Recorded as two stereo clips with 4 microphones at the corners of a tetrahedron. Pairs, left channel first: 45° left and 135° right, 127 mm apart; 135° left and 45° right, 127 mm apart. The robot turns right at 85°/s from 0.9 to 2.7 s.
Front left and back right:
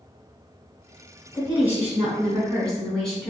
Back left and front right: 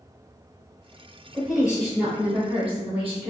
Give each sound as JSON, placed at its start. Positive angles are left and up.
{"t": 1.3, "sound": "a woman speaking", "azimuth_deg": -145, "distance_m": 1.1}